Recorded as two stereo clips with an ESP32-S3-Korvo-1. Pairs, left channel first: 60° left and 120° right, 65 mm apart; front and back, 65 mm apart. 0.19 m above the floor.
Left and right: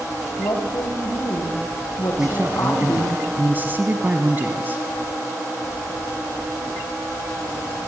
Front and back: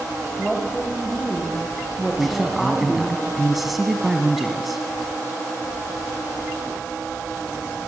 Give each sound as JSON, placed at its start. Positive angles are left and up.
{"t": 0.4, "sound": "a woman speaking", "azimuth_deg": 90, "distance_m": 8.0}
{"t": 2.2, "sound": "a man speaking", "azimuth_deg": -95, "distance_m": 1.4}